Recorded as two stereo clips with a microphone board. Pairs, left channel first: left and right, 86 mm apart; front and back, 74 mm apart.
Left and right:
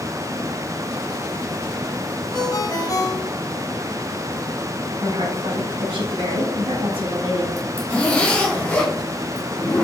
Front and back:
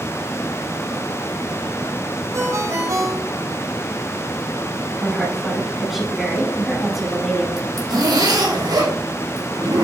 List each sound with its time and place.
2.3 s a ringtone: 140° left, 2.5 m
5.0 s a woman speaking: 95° right, 4 m
7.6 s a zipper: 165° left, 3.5 m